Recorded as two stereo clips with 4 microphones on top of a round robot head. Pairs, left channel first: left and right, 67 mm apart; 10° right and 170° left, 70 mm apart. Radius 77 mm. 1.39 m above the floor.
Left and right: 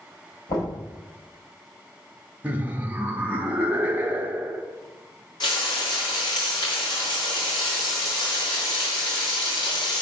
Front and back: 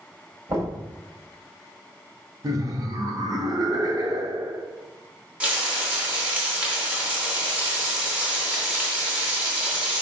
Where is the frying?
100° left, 2.5 m.